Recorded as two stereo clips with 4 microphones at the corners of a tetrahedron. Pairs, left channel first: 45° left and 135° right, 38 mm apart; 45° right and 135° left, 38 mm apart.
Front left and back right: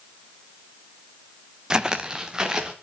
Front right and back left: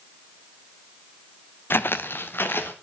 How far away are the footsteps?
About 0.5 m.